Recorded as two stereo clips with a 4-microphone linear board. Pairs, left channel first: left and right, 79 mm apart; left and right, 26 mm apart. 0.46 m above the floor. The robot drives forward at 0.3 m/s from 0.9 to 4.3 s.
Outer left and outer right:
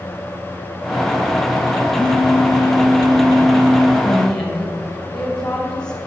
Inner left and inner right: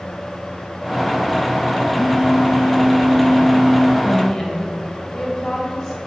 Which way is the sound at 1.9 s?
60° right (ahead or behind).